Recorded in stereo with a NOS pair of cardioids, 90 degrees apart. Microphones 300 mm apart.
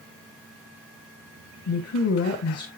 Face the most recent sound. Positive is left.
turn(degrees=55)